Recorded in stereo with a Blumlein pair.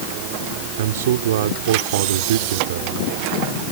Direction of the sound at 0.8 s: 60° right.